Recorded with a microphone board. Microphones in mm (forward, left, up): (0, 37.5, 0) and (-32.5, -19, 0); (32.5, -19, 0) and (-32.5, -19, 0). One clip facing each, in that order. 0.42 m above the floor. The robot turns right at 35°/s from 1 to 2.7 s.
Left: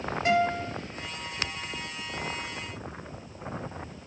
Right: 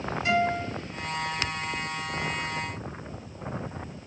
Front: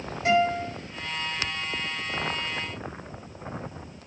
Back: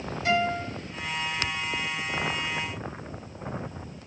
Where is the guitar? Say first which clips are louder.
Even, front 3 dB; 40° left, 1.8 m.